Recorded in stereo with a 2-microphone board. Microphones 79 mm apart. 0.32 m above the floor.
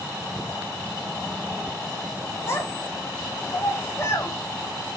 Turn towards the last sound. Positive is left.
turn(degrees=30)  # may be behind; listen again after turning